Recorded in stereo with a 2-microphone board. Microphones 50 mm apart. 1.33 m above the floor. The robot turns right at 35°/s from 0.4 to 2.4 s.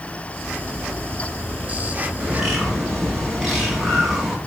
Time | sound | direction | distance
2.2 | a bird | 15° right (ahead or behind) | 1.9 m